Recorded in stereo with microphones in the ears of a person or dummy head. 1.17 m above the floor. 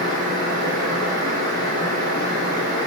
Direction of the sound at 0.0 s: 35° right (ahead or behind).